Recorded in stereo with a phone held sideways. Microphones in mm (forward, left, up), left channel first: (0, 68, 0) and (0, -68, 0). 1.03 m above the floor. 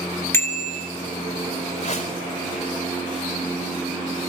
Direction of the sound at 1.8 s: 50° left (ahead or behind).